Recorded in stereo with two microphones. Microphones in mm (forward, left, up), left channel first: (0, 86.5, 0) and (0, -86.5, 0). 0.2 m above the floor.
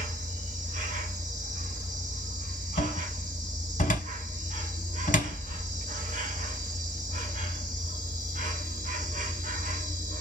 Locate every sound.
0.0 s an insect: 50° right (ahead or behind), 1.0 m
2.8 s a cupboard door: 50° left (ahead or behind), 0.8 m